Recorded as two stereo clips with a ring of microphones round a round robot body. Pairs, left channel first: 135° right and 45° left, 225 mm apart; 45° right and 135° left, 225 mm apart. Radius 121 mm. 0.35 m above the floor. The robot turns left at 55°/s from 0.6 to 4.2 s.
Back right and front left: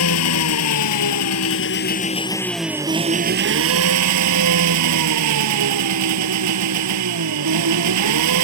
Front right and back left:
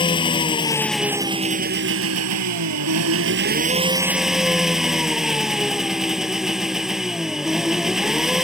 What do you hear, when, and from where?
0.0 s an engine running: 115° right; by 8.5 s 45° left